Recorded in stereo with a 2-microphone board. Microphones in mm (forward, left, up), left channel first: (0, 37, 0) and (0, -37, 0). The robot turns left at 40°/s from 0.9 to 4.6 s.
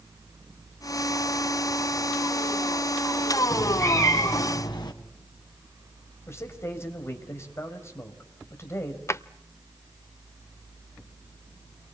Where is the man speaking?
35° left (ahead or behind), 4.5 m.